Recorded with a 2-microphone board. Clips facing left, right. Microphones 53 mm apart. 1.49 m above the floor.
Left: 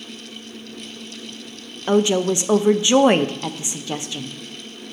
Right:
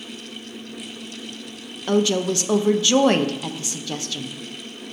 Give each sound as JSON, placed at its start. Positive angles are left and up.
{"t": 1.9, "sound": "a woman speaking", "side_deg": 25, "distance_m": 0.5}